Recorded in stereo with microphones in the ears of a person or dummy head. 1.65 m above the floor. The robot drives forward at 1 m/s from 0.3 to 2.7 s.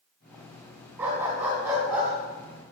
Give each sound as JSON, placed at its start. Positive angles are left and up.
{"t": 1.0, "sound": "a dog barking", "side_deg": -20, "distance_m": 2.5}